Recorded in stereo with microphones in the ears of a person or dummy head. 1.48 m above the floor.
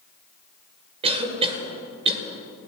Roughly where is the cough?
Right.